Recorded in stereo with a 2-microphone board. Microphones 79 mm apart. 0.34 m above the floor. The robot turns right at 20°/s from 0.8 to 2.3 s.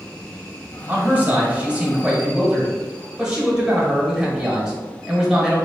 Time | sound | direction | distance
0.9 | a man speaking | 25° right (ahead or behind) | 1.3 m